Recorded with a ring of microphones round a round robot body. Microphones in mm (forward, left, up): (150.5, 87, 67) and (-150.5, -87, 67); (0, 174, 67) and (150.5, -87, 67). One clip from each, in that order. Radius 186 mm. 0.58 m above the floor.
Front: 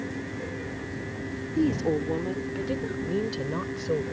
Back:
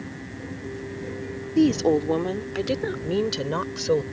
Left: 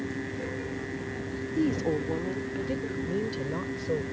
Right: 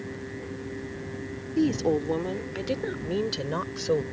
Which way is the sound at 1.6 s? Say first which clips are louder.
Back 6 dB, right 4 dB; 130° right.